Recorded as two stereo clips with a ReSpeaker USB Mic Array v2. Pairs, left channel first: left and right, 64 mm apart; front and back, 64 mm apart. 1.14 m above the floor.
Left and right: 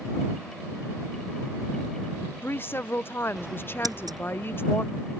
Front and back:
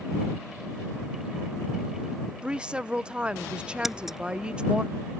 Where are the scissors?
95° right.